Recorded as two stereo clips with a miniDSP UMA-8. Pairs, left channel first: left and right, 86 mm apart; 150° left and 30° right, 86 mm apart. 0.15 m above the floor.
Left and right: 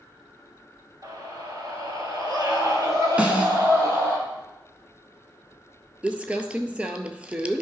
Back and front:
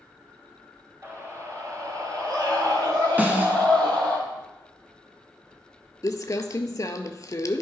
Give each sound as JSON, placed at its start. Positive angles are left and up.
{"t": 1.0, "sound": "a scream", "azimuth_deg": -85, "distance_m": 1.7}
{"t": 3.2, "sound": "a snare drum", "azimuth_deg": -55, "distance_m": 1.2}
{"t": 6.0, "sound": "crumpling", "azimuth_deg": -165, "distance_m": 0.6}